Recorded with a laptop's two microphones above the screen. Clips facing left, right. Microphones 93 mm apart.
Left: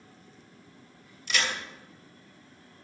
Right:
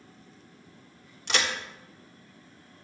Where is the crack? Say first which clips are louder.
Right 2 dB; 75° right (ahead or behind), 1.4 m.